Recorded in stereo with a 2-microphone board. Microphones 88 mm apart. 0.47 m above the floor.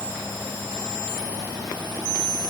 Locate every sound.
Only background noise.